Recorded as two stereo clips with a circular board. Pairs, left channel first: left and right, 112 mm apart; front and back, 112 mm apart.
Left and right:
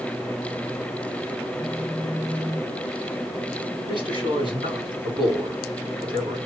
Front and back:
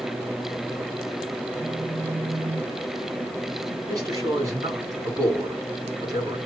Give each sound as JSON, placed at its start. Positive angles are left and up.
{"t": 1.6, "sound": "a phone buzzing", "azimuth_deg": -175, "distance_m": 1.6}
{"t": 3.9, "sound": "a man speaking", "azimuth_deg": -125, "distance_m": 3.0}